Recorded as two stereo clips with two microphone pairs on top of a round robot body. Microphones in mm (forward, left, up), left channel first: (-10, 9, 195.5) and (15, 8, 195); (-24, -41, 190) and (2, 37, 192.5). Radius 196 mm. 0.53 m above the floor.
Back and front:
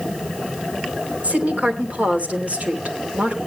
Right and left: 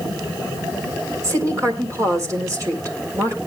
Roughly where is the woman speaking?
Ahead.